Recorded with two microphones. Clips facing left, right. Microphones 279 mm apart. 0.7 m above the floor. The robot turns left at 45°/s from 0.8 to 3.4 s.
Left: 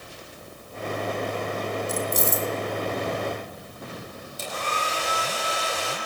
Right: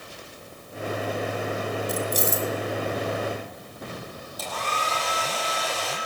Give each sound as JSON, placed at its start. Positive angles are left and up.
{"t": 1.9, "sound": "keys jangling", "side_deg": -65, "distance_m": 1.4}
{"t": 4.4, "sound": "a hair dryer", "side_deg": 30, "distance_m": 7.0}